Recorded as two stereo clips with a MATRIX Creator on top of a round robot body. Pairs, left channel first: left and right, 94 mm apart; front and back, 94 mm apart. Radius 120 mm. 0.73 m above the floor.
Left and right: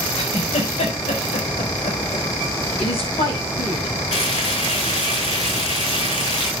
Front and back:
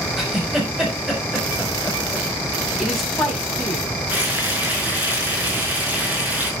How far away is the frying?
About 6 m.